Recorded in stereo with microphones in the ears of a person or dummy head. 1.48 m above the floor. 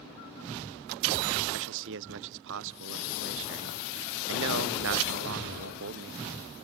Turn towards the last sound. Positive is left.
turn(degrees=-60)  # may be behind; listen again after turning